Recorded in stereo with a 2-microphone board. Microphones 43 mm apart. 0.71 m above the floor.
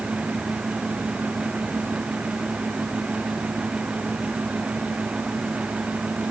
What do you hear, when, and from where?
Only background noise.